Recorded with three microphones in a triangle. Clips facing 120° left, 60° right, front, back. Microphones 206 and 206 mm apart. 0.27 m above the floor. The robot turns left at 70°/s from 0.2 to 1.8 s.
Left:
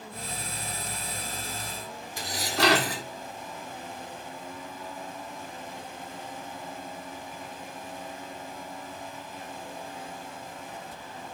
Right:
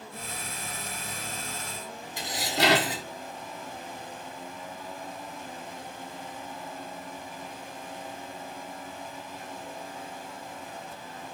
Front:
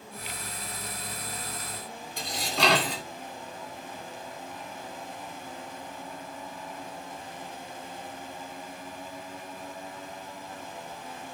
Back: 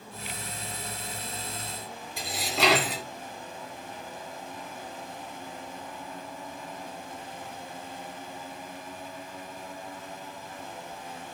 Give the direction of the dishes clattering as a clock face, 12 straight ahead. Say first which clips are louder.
Even, back 1 dB; 3 o'clock.